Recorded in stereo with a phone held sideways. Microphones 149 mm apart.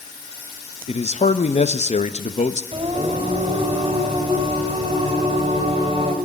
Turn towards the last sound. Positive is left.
turn(degrees=-40)  # may be behind; listen again after turning